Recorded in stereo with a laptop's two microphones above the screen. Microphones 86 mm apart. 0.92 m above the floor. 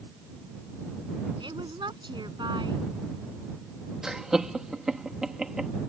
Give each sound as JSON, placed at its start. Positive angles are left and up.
{"t": 1.4, "sound": "a woman speaking", "side_deg": -65}
{"t": 4.0, "sound": "laughter", "side_deg": -5}